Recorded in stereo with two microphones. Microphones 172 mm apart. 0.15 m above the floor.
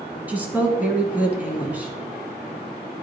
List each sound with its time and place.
0.3 s a woman speaking: 10° right (ahead or behind), 1.5 m